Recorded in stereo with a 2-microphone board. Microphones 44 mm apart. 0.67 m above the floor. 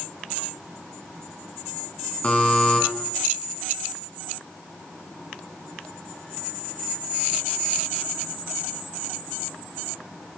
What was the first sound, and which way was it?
A buzzer, 35° left (ahead or behind).